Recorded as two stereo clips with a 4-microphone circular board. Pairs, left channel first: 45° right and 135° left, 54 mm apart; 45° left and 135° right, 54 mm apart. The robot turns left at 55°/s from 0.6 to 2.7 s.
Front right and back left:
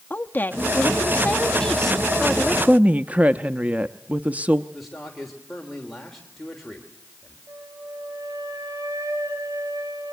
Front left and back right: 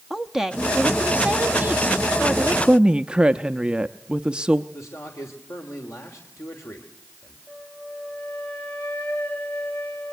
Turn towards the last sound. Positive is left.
turn(degrees=110)